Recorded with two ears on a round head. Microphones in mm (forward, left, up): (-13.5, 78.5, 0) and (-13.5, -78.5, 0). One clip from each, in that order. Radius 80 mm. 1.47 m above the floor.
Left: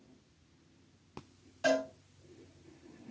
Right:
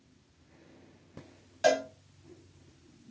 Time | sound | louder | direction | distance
1.6 | a cowbell | right 4 dB | 35° right (ahead or behind) | 2.5 m